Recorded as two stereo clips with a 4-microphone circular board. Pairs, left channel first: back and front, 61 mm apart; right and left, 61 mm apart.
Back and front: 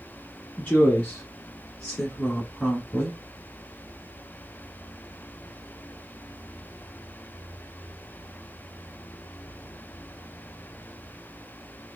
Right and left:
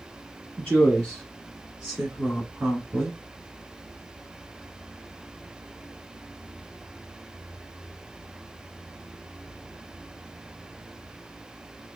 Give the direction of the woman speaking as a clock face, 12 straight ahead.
5 o'clock.